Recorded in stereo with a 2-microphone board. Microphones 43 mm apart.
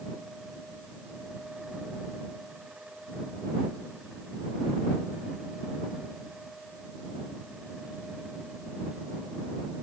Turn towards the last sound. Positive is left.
No sound to turn to.